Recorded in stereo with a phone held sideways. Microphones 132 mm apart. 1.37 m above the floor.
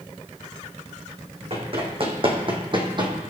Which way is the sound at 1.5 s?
45° right (ahead or behind).